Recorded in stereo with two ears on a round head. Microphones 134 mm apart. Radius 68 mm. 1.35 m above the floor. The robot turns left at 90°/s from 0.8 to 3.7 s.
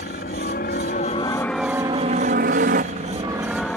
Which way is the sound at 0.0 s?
60° left (ahead or behind).